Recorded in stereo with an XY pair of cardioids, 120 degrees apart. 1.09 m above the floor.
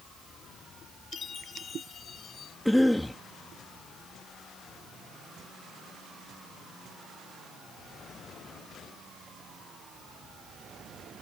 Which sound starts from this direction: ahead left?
A chime, at 1.1 s.